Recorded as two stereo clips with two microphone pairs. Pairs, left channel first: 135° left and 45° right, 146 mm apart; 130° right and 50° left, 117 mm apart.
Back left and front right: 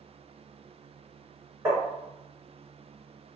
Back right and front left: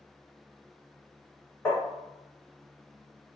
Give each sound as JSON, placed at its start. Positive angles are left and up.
{"t": 1.6, "sound": "tapping", "azimuth_deg": -95, "distance_m": 1.7}